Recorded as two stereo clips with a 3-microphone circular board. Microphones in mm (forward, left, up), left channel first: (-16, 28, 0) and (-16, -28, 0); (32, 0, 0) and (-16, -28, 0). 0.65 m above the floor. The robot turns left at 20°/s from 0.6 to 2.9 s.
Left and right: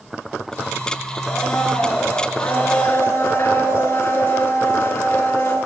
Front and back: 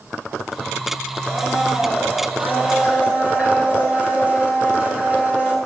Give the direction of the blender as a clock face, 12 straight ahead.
6 o'clock.